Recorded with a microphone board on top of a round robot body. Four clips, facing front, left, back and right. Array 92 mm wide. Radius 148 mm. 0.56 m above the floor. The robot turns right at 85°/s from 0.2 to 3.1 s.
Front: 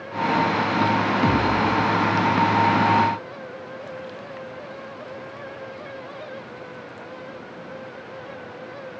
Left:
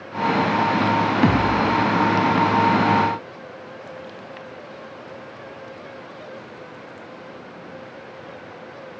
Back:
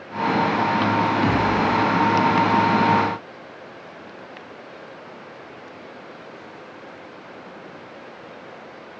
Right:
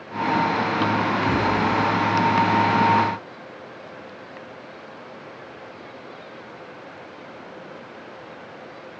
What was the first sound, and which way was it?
A thud, 80° left.